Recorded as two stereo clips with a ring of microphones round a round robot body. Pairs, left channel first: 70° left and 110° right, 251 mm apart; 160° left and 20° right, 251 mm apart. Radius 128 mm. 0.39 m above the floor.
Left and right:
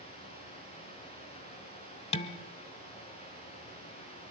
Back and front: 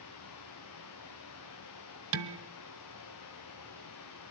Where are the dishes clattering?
5° left, 1.1 m.